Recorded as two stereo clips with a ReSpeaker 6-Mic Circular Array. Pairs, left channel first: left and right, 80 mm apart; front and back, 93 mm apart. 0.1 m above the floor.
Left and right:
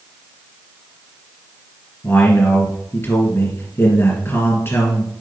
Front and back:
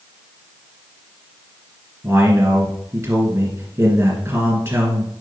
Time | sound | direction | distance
2.0 | a man speaking | 130° left | 2 m